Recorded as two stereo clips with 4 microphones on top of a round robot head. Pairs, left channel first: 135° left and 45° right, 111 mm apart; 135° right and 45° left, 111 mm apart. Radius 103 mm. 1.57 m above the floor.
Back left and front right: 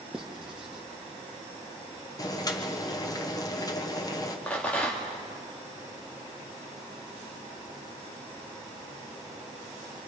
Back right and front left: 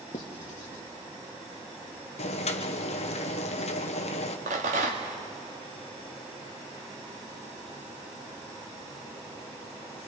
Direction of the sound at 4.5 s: 55° left.